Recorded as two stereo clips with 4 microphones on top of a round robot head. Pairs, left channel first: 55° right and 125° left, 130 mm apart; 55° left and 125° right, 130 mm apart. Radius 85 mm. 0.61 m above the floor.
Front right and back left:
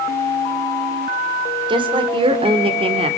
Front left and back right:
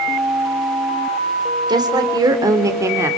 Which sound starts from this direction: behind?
A woman speaking, at 1.7 s.